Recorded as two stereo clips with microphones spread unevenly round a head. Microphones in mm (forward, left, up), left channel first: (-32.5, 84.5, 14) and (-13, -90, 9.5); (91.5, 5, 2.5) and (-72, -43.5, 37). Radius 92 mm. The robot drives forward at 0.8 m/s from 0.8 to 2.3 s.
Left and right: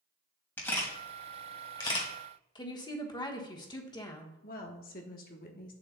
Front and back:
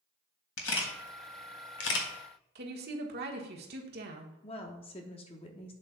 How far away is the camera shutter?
About 1.7 m.